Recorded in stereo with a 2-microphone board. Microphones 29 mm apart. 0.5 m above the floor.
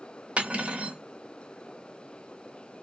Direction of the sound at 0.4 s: 40° right (ahead or behind).